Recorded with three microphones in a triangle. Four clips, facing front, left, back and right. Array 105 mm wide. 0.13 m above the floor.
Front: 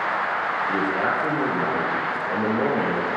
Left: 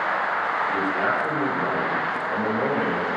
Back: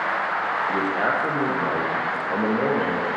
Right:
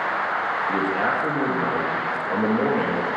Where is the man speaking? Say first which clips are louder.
Right 1 dB, even; 45° right, 3.5 m.